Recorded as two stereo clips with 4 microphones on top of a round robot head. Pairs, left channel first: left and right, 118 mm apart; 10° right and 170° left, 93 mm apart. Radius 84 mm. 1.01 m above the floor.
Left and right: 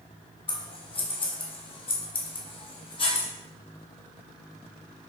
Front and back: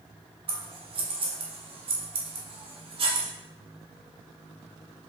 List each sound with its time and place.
0.5 s scissors: 140° left, 0.9 m